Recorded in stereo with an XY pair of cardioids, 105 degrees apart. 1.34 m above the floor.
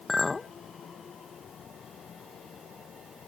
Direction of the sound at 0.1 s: 25° left.